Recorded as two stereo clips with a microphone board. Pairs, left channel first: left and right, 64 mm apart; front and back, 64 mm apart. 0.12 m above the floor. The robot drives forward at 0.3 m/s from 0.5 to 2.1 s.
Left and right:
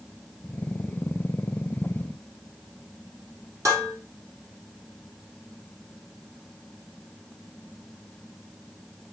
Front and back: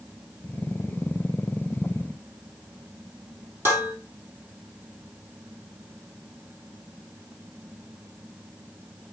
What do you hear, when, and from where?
3.6 s dishes clattering: 130° right, 3 m